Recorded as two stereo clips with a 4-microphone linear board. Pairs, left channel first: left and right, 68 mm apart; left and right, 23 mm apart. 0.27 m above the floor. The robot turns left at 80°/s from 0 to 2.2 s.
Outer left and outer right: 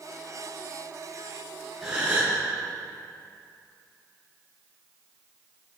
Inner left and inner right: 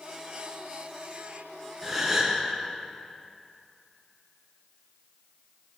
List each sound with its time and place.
1.8 s a gasp: 5° right, 6.5 m; by 2.4 s 35° right, 6.5 m